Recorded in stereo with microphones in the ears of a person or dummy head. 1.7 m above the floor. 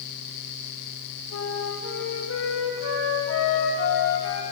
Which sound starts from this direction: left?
A flute, at 1.3 s.